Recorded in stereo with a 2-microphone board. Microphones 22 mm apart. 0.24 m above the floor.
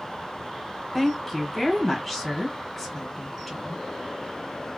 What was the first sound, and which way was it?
A woman speaking, 10° left (ahead or behind).